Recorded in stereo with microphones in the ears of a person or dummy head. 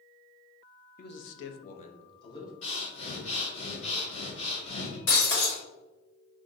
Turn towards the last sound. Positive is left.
turn(degrees=70)  # may be behind; listen again after turning